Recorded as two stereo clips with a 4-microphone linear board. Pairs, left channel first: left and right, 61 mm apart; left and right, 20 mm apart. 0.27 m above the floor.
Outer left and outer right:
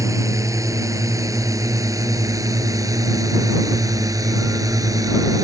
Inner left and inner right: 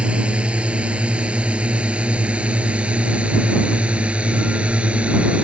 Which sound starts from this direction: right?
A drone, at 0.0 s.